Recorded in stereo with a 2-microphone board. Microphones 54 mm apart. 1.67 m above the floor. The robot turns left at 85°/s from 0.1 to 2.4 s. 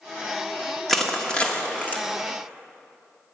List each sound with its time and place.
0.9 s crushing: 5° left (ahead or behind), 1.3 m; by 2.0 s 30° left (ahead or behind), 1.3 m